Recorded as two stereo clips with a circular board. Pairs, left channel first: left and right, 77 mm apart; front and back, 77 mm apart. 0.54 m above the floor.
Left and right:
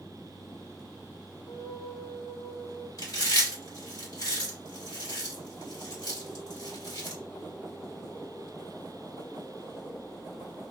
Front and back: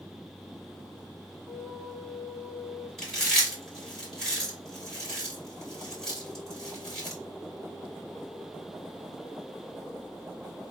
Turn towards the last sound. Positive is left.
turn(degrees=85)